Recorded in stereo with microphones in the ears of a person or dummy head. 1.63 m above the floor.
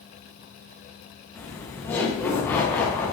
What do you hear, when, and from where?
1.4 s laughter: 10° left (ahead or behind), 0.7 m